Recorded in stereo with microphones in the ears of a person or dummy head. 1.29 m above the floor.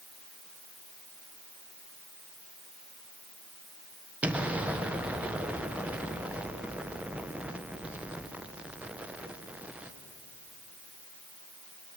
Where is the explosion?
5° right (ahead or behind), 1.1 m.